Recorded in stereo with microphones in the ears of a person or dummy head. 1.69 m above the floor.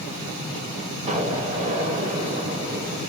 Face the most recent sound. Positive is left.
turn(degrees=-40)  # may be behind; listen again after turning